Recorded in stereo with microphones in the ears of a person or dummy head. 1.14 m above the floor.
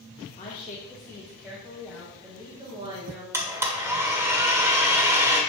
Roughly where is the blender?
Centre.